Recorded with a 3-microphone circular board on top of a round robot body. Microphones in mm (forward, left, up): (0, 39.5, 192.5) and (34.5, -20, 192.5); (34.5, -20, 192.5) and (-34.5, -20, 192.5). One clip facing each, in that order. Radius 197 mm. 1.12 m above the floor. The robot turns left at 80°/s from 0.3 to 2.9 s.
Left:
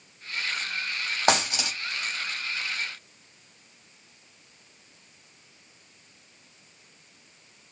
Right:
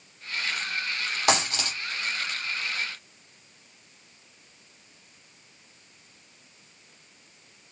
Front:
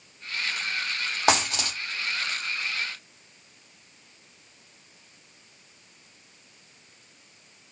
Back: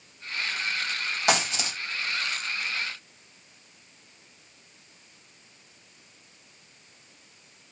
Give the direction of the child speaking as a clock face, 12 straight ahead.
No child speaking in this recording.